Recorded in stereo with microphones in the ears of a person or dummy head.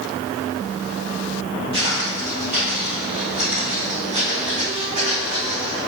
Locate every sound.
1.7 s footsteps: 30° right (ahead or behind), 2 m; by 5.8 s 25° right (ahead or behind), 4.5 m